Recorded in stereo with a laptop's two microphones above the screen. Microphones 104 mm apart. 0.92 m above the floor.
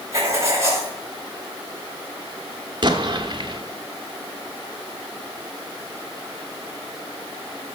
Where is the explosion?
45° right (ahead or behind), 1.3 m.